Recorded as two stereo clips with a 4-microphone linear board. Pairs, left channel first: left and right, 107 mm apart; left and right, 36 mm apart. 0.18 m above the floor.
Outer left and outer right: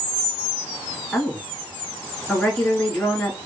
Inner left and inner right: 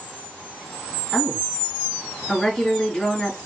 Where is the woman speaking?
10° left (ahead or behind), 3 m.